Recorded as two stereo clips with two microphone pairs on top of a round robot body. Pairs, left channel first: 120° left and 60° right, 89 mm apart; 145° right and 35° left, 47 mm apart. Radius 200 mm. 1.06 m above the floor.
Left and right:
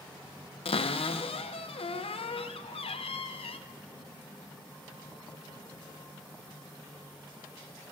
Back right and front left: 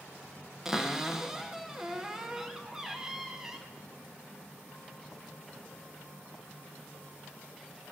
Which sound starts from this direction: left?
A cupboard door, at 0.7 s.